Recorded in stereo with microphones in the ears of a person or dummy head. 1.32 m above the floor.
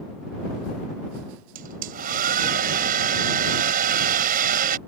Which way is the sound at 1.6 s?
55° right (ahead or behind).